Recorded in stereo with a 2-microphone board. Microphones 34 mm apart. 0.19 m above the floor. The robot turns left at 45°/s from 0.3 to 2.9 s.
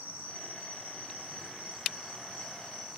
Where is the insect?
85° right, 1.6 m; by 3.0 s 155° left, 1.6 m.